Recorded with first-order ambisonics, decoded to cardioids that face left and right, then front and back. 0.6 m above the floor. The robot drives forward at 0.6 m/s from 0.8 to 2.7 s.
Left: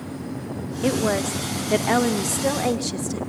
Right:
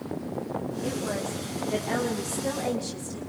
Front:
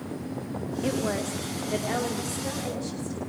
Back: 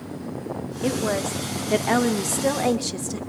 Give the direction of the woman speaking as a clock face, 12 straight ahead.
9 o'clock.